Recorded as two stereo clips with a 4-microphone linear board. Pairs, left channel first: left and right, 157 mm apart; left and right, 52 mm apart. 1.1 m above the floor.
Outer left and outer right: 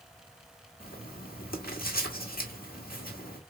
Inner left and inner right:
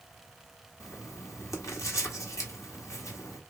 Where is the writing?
70° left (ahead or behind), 1.6 m.